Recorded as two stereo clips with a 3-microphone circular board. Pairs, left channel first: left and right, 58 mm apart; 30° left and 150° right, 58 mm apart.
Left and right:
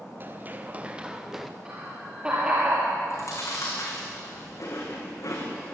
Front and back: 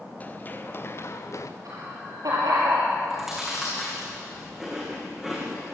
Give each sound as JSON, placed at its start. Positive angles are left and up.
{"t": 0.2, "sound": "running footsteps", "azimuth_deg": -35, "distance_m": 2.0}
{"t": 1.6, "sound": "laughter", "azimuth_deg": -165, "distance_m": 7.0}
{"t": 3.1, "sound": "chewing", "azimuth_deg": 120, "distance_m": 6.0}